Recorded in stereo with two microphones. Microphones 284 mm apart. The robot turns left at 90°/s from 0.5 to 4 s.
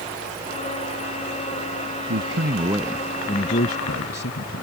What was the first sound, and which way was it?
A man speaking, 105° right.